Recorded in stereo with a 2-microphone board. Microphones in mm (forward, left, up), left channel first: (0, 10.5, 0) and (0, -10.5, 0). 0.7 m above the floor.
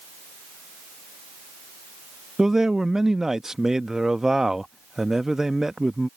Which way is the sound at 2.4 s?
20° right (ahead or behind).